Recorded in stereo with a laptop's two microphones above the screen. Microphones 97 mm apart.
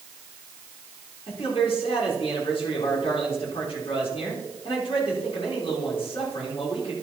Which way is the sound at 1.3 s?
70° left (ahead or behind).